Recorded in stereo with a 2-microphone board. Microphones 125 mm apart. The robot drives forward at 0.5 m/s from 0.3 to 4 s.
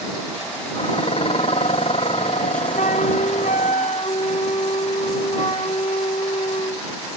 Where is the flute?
65° left (ahead or behind); by 6.9 s 60° left (ahead or behind).